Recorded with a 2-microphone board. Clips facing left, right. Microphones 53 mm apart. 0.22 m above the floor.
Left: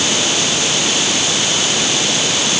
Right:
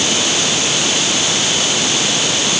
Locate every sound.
Only background noise.